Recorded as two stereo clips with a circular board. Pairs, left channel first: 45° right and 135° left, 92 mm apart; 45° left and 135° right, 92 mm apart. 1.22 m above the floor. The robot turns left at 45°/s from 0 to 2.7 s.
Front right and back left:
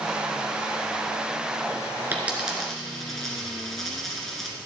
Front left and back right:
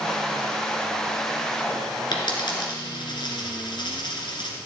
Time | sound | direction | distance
2.1 | a dropped coin | 65° left | 2 m